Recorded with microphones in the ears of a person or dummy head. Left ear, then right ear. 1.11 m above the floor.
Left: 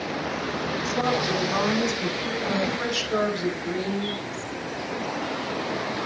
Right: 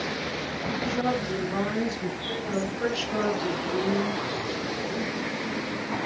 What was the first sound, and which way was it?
A woman speaking, 85° left.